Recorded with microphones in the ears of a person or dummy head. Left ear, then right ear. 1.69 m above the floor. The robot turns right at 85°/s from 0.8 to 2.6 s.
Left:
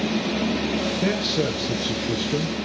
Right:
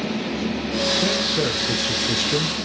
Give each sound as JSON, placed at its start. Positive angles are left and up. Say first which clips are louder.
{"t": 1.0, "sound": "a man speaking", "louder": "right 2 dB", "azimuth_deg": 170, "distance_m": 1.4}